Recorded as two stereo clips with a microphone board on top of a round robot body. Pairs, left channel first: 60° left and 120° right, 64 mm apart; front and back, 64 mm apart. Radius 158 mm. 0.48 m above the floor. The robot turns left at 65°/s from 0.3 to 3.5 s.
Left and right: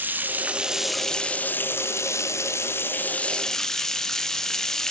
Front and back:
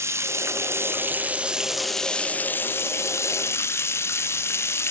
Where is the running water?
170° right, 0.8 m; by 4.9 s 20° right, 0.8 m.